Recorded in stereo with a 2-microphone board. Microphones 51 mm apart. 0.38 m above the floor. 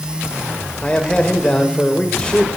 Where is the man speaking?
20° left (ahead or behind), 1.7 m.